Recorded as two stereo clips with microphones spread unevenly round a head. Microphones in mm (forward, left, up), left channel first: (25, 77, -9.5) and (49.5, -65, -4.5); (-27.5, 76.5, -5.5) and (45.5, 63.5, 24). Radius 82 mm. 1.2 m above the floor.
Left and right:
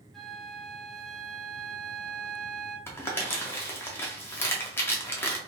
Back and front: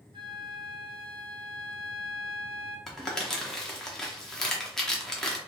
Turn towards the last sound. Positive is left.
turn(degrees=40)